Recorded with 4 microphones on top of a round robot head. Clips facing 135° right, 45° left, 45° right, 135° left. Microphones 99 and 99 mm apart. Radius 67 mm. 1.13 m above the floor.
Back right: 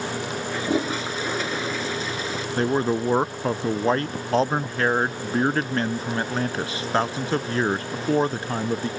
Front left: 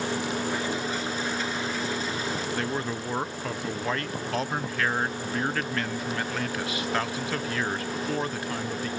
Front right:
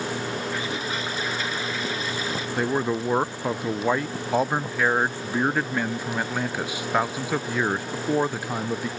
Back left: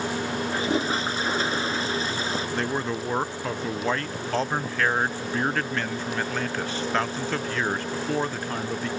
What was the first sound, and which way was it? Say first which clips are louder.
A toilet flushing: back right 5 dB, back left 4 dB; 160° right.